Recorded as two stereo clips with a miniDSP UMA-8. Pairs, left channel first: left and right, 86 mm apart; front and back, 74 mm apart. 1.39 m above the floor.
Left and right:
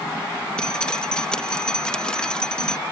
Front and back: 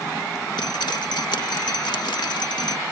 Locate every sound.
0.6 s dripping: 10° left